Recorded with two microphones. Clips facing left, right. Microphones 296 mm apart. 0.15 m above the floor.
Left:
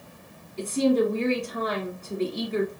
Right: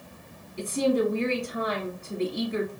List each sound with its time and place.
0.6 s a woman speaking: 15° right (ahead or behind), 1.2 m